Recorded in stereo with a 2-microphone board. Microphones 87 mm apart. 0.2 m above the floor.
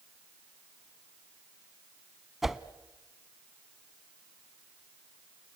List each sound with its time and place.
2.4 s a whoosh: 5° right (ahead or behind), 0.8 m